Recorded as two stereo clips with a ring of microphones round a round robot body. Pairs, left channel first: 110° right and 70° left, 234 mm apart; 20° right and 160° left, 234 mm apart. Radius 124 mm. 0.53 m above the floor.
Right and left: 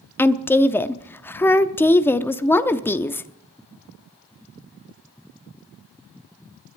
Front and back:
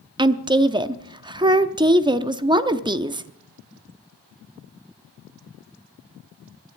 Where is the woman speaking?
175° right, 0.6 m.